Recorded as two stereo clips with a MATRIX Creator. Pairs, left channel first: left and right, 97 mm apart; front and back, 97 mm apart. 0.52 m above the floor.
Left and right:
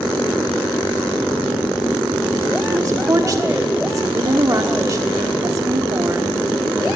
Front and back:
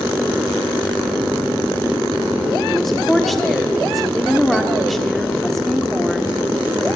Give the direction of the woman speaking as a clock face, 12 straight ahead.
3 o'clock.